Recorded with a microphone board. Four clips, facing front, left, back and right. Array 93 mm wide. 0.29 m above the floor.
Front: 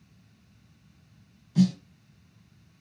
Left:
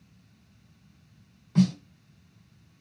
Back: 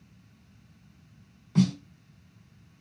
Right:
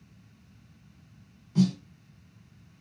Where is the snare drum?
150° left, 2 m.